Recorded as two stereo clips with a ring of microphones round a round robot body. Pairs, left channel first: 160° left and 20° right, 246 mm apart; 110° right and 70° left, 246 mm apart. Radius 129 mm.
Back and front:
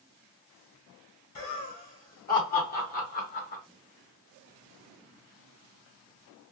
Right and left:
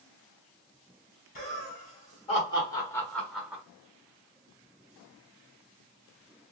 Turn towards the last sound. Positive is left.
turn(degrees=145)